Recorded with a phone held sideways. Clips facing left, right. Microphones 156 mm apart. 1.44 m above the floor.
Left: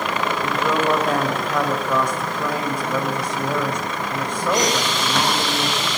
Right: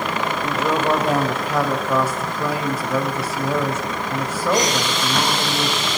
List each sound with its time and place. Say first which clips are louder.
0.4 s a woman speaking: right 1 dB; 5° right (ahead or behind), 6 m